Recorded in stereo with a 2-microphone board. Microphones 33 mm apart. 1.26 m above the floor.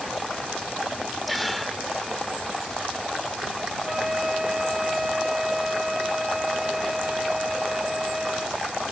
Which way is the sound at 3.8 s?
10° right (ahead or behind).